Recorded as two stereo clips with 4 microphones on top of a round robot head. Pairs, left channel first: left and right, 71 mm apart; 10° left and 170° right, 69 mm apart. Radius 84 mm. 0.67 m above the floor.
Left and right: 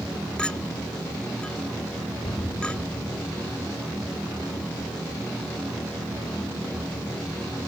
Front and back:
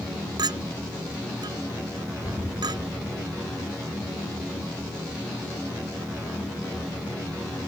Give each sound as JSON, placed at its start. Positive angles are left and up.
{"t": 0.4, "sound": "a clink", "azimuth_deg": 170}
{"t": 2.2, "sound": "an explosion", "azimuth_deg": 140}